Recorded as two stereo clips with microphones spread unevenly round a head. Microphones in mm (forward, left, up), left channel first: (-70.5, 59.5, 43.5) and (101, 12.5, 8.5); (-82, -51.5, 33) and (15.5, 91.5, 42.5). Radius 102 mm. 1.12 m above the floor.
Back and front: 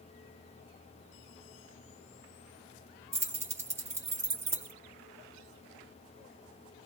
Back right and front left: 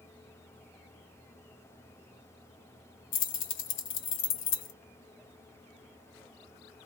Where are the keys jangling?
95° right, 0.8 m.